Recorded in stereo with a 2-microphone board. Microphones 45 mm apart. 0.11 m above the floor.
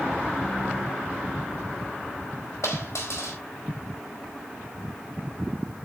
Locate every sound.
2.6 s a dropped coin: 85° left, 4.5 m